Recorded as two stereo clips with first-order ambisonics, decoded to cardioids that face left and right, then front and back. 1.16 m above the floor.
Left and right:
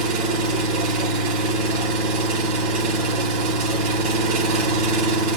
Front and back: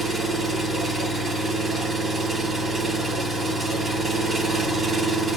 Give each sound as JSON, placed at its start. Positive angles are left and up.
{"t": 0.0, "sound": "an engine running", "azimuth_deg": -95, "distance_m": 4.0}